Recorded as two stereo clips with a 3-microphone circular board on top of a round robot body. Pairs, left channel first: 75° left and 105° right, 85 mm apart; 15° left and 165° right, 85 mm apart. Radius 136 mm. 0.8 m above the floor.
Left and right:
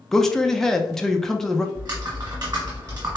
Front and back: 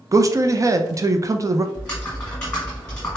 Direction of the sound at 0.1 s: 160° left.